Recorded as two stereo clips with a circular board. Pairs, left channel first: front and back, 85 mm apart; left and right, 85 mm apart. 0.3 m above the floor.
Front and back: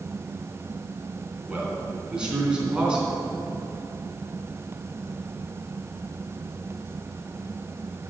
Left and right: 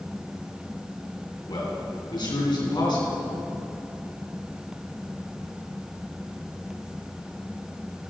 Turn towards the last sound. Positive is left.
turn(degrees=105)